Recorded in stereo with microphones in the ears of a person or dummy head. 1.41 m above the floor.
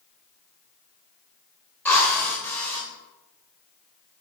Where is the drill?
10° left (ahead or behind), 4.5 m.